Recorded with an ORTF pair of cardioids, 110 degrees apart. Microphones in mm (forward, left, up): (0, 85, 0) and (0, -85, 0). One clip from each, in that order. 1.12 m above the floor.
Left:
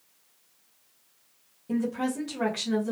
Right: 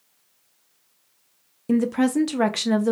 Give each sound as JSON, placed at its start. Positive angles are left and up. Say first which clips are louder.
{"t": 1.7, "sound": "a woman speaking", "louder": "right 8 dB", "azimuth_deg": -65, "distance_m": 0.5}